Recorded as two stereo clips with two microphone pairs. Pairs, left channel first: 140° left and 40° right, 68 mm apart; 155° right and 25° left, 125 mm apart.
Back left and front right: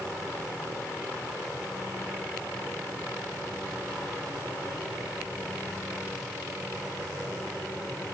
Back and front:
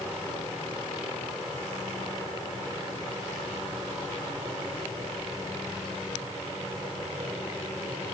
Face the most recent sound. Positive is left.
No sound to turn to.